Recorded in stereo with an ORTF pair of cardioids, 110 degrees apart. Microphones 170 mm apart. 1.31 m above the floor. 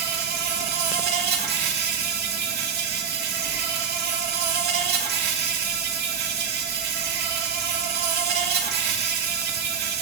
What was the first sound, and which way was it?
An insect, 65° right.